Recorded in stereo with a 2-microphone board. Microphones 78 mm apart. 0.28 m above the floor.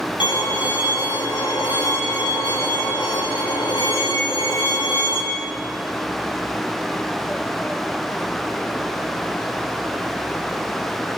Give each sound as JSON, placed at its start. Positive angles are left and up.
{"t": 0.2, "sound": "a violin", "side_deg": 80, "distance_m": 7.0}